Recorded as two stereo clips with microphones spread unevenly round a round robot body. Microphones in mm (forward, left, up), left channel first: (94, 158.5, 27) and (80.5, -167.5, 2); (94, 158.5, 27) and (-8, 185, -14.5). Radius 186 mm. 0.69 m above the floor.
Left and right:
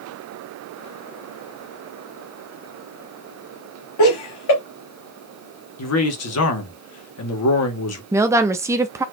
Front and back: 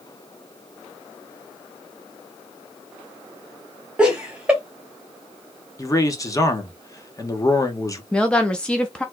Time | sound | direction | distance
4.0 | laughter | 110° left | 1.4 m
5.8 | a man speaking | 60° left | 1.7 m
8.1 | a woman speaking | 145° right | 0.5 m